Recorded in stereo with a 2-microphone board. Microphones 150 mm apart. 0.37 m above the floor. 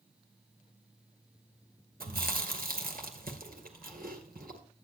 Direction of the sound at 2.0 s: 80° right.